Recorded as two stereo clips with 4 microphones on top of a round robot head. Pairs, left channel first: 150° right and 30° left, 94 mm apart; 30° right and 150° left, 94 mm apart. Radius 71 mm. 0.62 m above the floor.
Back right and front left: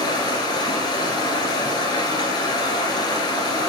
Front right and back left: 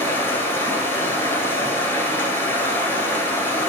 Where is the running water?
100° right, 1.5 m.